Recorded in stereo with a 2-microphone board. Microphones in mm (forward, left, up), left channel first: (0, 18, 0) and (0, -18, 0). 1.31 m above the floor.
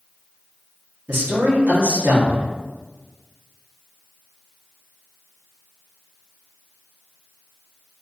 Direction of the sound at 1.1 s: 75° right (ahead or behind).